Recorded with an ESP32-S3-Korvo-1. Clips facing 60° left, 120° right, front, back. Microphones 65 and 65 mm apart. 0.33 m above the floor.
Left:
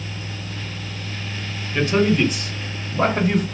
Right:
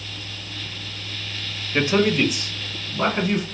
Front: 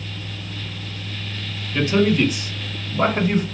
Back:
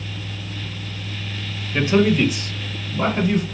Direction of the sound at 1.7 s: 155° right.